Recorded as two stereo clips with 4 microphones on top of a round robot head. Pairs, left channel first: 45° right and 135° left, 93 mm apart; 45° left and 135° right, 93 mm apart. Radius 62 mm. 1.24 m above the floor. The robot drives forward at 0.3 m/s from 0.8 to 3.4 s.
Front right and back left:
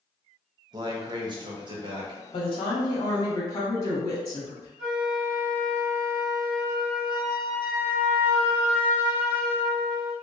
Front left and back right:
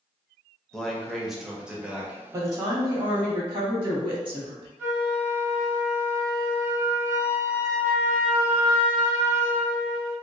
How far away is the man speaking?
About 0.7 m.